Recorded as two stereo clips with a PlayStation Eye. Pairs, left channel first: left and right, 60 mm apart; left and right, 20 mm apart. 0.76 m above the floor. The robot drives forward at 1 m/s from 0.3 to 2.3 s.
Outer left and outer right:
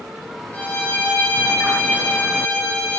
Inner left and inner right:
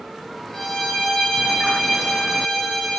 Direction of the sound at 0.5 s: 35° left (ahead or behind).